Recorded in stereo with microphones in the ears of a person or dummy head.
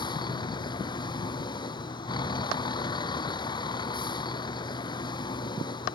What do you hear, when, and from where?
0.0 s a vehicle: 25° left (ahead or behind)